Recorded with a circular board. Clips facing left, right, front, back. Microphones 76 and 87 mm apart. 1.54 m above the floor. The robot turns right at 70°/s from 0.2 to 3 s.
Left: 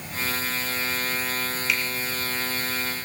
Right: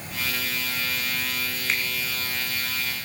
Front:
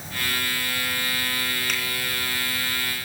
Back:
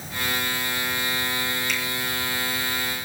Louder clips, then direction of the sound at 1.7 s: Even, back 1 dB; 35° right.